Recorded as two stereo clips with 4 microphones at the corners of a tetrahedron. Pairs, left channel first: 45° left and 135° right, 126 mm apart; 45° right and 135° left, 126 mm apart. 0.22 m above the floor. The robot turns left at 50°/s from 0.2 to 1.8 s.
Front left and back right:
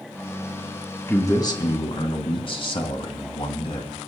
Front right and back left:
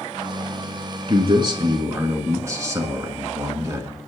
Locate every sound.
1.1 s a man speaking: 110° left, 1.9 m; by 4.0 s 75° left, 1.9 m